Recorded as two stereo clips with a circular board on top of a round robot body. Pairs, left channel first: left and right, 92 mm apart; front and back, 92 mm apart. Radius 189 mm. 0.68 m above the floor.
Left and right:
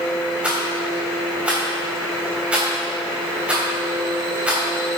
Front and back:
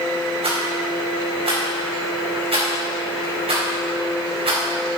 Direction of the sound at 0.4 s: 165° right.